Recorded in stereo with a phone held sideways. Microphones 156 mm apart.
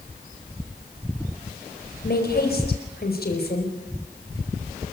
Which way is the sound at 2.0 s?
70° left (ahead or behind).